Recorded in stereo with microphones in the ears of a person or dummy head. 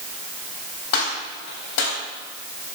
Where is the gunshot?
75° left (ahead or behind), 4 m.